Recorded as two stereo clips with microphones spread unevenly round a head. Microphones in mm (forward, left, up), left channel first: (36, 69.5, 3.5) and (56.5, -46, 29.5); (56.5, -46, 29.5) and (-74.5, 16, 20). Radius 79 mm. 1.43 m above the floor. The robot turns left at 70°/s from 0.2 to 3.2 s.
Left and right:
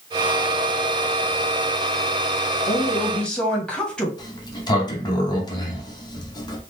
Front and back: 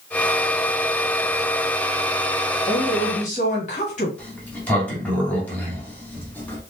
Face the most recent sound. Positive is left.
turn(degrees=55)